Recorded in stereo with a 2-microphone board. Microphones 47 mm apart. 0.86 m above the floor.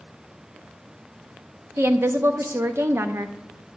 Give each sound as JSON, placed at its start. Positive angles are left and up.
{"t": 1.8, "sound": "a woman speaking", "side_deg": -65, "distance_m": 0.9}